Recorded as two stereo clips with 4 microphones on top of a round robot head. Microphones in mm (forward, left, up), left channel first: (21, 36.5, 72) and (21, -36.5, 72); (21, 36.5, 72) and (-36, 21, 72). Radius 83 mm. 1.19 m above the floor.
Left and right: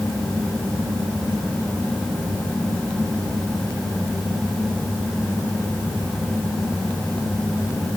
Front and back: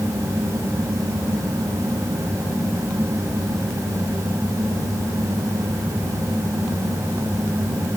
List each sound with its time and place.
Only background noise.